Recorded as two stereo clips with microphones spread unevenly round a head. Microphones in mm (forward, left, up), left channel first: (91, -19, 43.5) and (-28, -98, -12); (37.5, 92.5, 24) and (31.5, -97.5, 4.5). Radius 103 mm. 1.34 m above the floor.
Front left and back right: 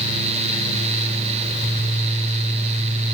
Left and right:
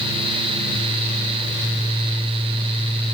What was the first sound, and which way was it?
Only background noise.